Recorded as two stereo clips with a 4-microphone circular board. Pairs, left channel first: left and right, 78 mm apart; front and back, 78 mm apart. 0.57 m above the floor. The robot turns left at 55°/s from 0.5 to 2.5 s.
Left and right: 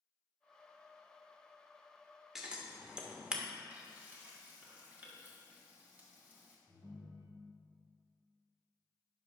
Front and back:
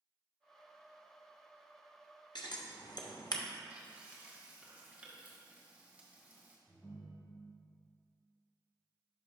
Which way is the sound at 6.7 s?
65° right.